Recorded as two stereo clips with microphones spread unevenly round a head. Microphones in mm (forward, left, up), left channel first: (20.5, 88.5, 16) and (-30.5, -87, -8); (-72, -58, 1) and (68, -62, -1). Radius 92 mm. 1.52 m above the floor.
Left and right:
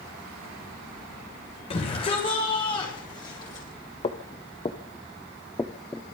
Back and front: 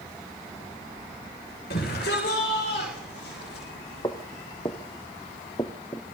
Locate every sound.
1.7 s a shout: 135° left, 8 m; by 3.7 s 145° left, 8.5 m
4.0 s footsteps: 115° left, 2 m; by 6.1 s 135° left, 1.6 m